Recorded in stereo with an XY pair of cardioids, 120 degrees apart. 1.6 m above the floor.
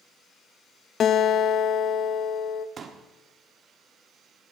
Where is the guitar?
50° left, 0.6 m.